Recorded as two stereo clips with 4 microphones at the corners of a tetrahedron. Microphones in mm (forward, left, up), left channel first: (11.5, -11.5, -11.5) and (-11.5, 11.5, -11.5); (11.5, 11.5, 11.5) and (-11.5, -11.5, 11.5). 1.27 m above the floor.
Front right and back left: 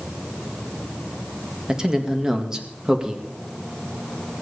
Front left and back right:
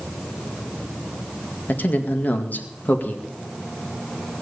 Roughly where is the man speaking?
Ahead left.